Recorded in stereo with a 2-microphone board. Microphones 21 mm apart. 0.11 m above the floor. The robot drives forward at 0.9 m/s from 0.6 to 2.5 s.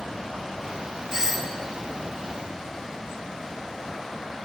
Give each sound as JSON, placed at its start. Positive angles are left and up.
{"t": 1.1, "sound": "a doorbell", "side_deg": -25, "distance_m": 2.5}